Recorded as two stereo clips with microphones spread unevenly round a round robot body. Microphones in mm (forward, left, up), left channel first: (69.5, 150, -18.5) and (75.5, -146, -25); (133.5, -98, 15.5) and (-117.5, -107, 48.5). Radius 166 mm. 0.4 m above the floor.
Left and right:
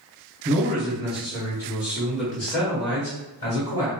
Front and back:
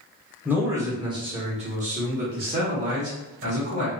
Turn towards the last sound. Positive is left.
turn(degrees=150)